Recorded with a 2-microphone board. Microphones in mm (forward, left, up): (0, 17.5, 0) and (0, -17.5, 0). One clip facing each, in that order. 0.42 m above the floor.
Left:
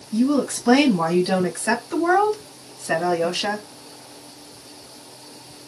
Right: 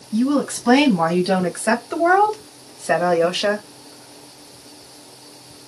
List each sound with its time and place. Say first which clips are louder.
0.1 s a woman speaking: right 1 dB; 30° right (ahead or behind), 2.5 m; by 3.7 s 60° right (ahead or behind), 1.5 m